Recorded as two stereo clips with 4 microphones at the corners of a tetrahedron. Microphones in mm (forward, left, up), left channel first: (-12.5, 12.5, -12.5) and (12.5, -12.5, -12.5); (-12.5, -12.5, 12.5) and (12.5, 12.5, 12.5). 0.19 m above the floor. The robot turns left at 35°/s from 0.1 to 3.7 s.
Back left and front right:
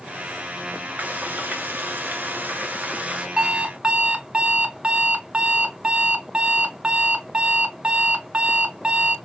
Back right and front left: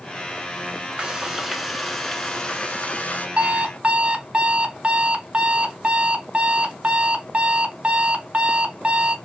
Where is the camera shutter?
I don't hear a camera shutter.